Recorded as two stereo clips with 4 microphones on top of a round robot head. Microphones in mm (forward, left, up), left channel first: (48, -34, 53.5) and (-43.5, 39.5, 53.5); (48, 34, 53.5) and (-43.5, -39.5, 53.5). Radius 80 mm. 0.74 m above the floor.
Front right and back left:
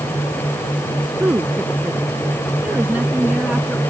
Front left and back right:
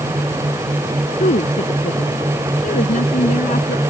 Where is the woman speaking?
65° left; by 3.8 s 60° left.